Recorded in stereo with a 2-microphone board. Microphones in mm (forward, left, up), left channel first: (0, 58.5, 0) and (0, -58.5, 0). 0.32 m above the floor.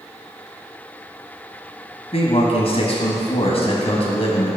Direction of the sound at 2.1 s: 60° left (ahead or behind).